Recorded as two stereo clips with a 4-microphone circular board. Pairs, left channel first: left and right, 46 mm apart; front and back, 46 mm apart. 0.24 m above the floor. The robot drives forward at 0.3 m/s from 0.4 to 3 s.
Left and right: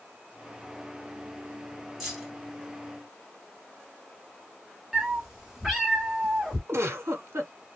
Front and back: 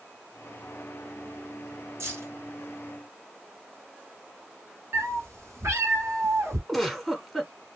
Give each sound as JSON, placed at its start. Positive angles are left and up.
{"t": 2.0, "sound": "keys jangling", "azimuth_deg": -170, "distance_m": 2.0}
{"t": 4.9, "sound": "a cat meowing", "azimuth_deg": -175, "distance_m": 1.2}
{"t": 6.7, "sound": "a giggle", "azimuth_deg": -90, "distance_m": 0.8}